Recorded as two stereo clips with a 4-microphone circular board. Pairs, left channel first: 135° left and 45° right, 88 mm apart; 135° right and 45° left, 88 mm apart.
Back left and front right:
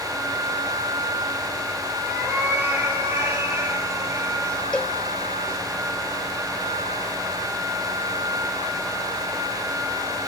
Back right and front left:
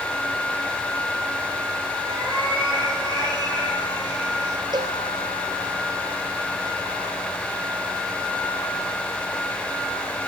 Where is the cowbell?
60° left, 0.5 m.